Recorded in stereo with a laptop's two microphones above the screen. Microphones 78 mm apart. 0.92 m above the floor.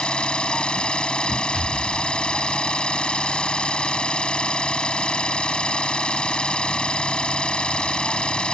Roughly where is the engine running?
Centre.